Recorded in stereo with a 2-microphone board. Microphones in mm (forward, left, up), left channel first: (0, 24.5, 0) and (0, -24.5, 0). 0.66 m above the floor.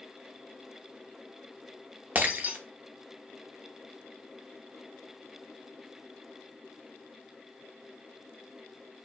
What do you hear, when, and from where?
2.1 s breaking glass: 35° right (ahead or behind), 0.6 m